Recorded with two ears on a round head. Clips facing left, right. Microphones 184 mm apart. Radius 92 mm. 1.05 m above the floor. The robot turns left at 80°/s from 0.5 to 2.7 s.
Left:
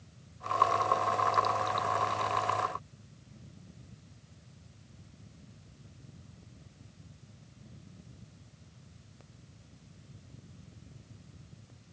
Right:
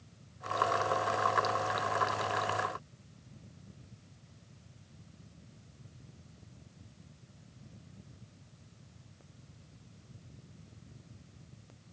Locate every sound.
Only background noise.